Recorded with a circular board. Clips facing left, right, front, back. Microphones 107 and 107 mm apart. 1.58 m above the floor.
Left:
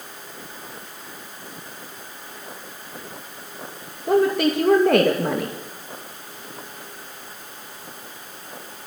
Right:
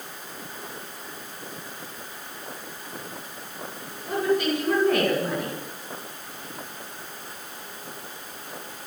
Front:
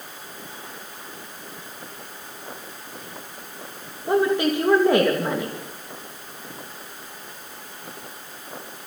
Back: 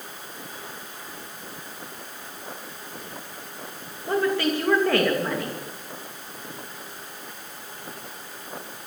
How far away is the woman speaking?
About 2.5 m.